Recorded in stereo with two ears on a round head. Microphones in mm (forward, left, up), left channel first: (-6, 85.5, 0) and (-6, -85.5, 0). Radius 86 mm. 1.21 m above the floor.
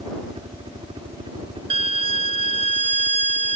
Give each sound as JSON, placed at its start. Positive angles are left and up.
{"t": 0.0, "sound": "a helicopter", "side_deg": -30}
{"t": 1.7, "sound": "a violin", "side_deg": -30}